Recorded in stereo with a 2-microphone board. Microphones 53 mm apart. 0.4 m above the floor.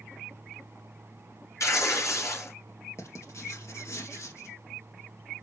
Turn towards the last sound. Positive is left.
turn(degrees=65)  # may be behind; listen again after turning